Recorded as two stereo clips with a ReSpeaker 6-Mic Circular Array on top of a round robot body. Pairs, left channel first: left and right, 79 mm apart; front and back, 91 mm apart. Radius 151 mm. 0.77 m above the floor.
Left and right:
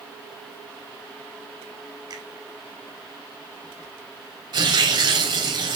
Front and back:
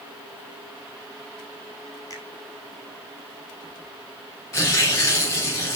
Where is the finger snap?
50° right, 5.5 m.